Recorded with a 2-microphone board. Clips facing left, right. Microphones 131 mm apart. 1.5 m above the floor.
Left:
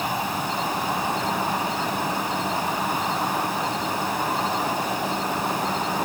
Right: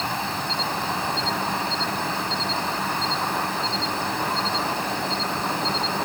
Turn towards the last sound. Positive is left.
turn(degrees=10)  # may be behind; listen again after turning